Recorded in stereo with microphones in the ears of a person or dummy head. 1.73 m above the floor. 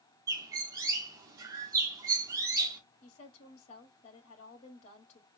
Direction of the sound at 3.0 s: 45° left (ahead or behind).